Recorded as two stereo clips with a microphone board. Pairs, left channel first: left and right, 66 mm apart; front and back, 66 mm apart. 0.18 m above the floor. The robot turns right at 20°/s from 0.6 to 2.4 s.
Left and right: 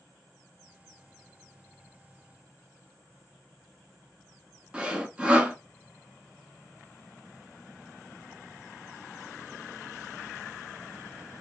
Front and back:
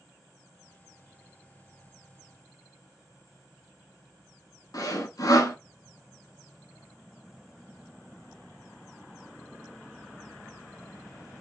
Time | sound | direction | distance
4.7 | sawing | 15° right | 0.6 m